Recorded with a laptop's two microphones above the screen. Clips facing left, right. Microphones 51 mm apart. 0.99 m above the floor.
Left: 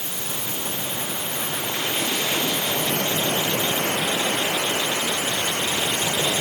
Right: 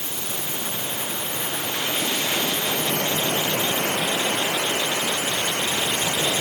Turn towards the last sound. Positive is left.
No sound to turn to.